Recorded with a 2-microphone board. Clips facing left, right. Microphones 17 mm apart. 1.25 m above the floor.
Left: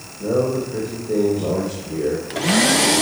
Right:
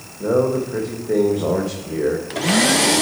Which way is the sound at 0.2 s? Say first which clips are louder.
Right 2 dB; 60° right (ahead or behind).